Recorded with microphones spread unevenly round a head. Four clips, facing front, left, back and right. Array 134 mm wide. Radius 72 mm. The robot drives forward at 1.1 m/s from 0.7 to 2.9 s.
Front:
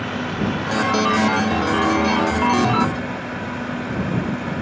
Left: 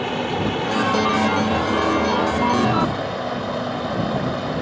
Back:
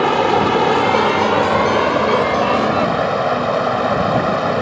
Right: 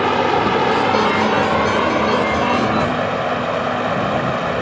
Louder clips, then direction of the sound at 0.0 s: Right 7 dB, back 10 dB; 150° right.